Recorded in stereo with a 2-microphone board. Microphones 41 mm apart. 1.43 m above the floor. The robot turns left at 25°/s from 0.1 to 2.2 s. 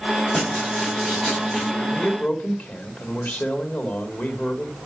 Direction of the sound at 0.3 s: 25° left.